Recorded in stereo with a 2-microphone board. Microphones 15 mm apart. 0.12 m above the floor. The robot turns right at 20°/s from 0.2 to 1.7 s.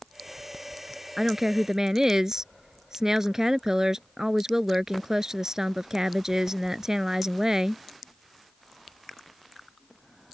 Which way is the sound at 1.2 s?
40° right (ahead or behind).